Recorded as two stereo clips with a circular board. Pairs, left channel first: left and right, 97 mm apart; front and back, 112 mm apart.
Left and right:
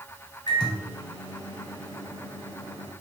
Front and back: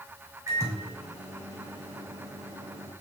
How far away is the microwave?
About 1.8 m.